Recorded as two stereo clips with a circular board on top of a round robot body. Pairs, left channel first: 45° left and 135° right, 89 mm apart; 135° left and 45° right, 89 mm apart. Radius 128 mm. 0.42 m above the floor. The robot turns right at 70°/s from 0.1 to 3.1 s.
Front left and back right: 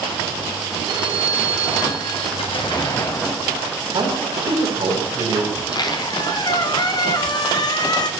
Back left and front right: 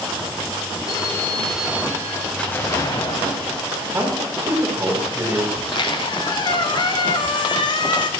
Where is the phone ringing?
Straight behind, 1.6 m; by 2.3 s 80° right, 1.6 m.